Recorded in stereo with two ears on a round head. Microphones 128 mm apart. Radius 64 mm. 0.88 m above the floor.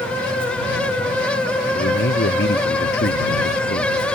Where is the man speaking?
80° left.